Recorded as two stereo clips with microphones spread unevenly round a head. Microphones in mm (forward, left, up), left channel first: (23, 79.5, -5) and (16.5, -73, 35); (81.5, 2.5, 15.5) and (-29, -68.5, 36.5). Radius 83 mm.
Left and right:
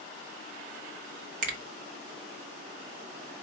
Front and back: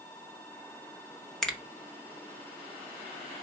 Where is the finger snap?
50° right, 0.9 m.